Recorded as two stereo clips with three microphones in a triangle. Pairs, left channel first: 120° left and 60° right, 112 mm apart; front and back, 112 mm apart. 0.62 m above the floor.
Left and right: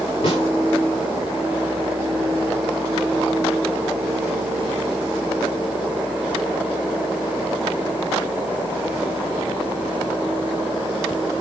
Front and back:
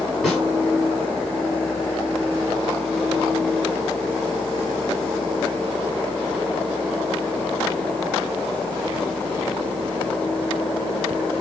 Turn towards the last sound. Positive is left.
turn(degrees=90)